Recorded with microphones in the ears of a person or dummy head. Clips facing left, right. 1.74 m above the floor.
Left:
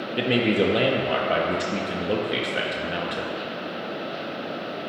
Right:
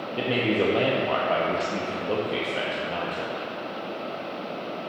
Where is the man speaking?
20° left (ahead or behind), 0.5 m.